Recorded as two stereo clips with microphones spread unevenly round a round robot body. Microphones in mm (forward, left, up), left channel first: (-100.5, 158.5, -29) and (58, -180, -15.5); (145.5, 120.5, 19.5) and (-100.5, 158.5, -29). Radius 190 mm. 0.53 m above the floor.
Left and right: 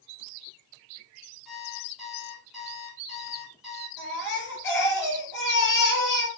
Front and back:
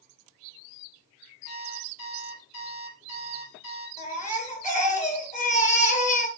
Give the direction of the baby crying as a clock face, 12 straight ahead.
10 o'clock.